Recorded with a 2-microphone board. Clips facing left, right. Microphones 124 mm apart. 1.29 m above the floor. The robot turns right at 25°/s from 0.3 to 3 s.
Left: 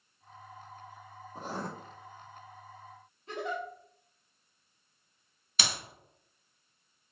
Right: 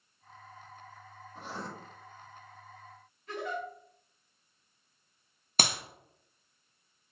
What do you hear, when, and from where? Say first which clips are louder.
1.4 s writing: left 4 dB; 40° left (ahead or behind), 0.7 m; by 1.7 s 45° left (ahead or behind), 0.7 m
3.3 s a giggle: left 1 dB; 25° left (ahead or behind), 2 m
5.6 s a clap: right 4 dB; 50° right (ahead or behind), 0.7 m